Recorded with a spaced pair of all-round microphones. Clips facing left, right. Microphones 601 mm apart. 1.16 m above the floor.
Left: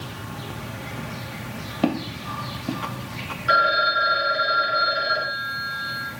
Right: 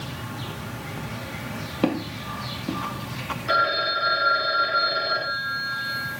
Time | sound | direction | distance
1.8 | footsteps | 10° left (ahead or behind) | 1.2 m
3.5 | a phone ringing | 40° left (ahead or behind) | 2.5 m